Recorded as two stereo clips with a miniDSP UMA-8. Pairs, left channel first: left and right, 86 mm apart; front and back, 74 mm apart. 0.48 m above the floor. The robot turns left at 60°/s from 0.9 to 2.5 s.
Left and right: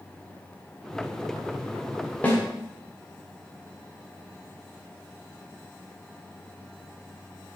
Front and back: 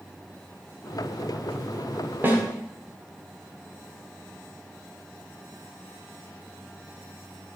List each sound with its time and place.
2.2 s a snare drum: 145° left, 1.6 m; by 2.4 s 135° left, 1.6 m